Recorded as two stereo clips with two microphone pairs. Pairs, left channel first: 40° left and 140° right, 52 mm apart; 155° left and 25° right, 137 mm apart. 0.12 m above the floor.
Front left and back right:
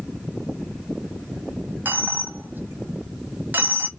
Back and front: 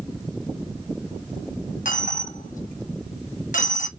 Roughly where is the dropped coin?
Behind.